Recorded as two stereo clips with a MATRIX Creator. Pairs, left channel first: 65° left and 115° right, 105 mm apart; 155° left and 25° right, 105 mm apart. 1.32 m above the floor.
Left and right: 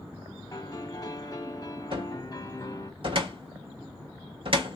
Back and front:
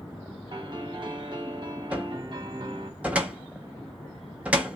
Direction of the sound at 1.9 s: 100° right.